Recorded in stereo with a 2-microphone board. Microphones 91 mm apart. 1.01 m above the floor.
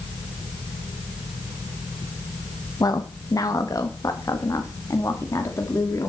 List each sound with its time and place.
2.8 s a woman speaking: 45° left (ahead or behind), 1.3 m; by 6.1 s 35° left (ahead or behind), 3 m